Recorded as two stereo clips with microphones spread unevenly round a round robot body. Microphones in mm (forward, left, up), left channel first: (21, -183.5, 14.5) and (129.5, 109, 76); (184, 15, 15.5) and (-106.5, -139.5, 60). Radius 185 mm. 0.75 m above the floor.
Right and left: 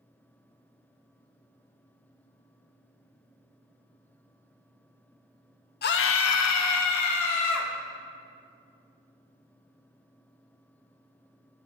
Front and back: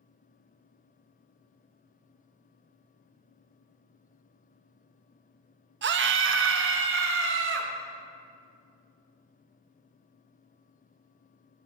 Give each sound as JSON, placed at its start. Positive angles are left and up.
{"t": 5.8, "sound": "a scream", "azimuth_deg": -100, "distance_m": 0.5}